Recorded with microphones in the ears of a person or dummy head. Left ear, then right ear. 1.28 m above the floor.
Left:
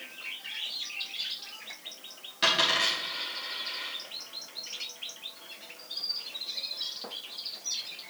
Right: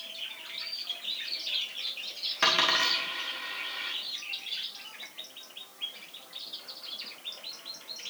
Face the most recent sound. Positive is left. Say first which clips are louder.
# even
turn(degrees=-30)  # may be behind; listen again after turning